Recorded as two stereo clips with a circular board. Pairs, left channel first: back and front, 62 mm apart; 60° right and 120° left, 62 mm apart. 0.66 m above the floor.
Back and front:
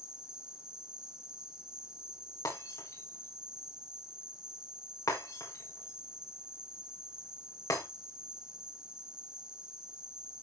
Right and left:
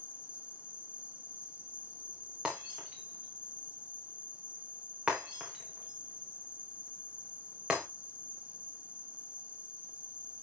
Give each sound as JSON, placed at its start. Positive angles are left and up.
{"t": 0.0, "sound": "an insect", "azimuth_deg": 70, "distance_m": 1.1}
{"t": 2.5, "sound": "breaking glass", "azimuth_deg": -165, "distance_m": 6.0}